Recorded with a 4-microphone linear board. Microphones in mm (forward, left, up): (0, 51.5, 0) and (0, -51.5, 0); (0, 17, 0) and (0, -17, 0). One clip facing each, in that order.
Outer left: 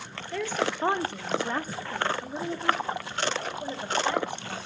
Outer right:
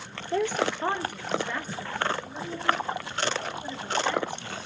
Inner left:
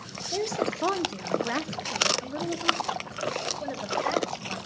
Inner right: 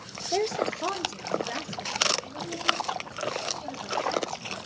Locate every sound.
0.3 s a woman speaking: 30° right (ahead or behind), 0.6 m; by 4.6 s 60° left (ahead or behind), 4 m